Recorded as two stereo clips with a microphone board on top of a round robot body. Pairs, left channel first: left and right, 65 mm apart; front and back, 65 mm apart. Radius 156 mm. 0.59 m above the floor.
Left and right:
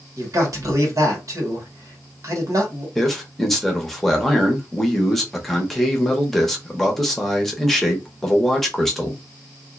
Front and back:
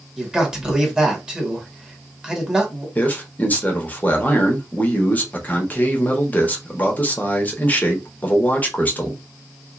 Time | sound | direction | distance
0.2 | a man speaking | 105° right | 1.7 m
3.0 | a man speaking | 10° left | 1.2 m